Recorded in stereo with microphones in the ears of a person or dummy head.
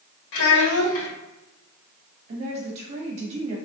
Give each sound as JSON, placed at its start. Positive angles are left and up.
{"t": 0.3, "sound": "a child speaking", "side_deg": 75, "distance_m": 1.4}
{"t": 2.3, "sound": "a woman speaking", "side_deg": -40, "distance_m": 1.5}